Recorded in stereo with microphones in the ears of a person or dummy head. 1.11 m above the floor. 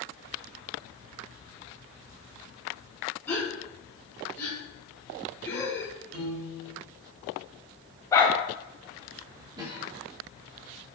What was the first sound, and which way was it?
A gasp, 5° left (ahead or behind).